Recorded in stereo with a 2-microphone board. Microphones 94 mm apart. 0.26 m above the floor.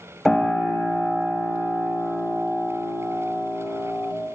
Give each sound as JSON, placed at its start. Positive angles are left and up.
{"t": 0.2, "sound": "a piano", "side_deg": 0, "distance_m": 1.6}